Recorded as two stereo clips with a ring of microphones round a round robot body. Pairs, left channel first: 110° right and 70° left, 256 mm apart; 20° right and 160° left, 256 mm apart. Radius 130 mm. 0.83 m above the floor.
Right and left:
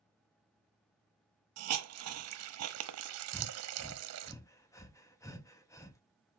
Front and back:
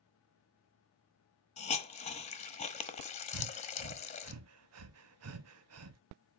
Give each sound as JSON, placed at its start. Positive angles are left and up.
{"t": 1.6, "sound": "a hiss", "azimuth_deg": 45, "distance_m": 1.0}
{"t": 3.3, "sound": "breathing", "azimuth_deg": 170, "distance_m": 0.8}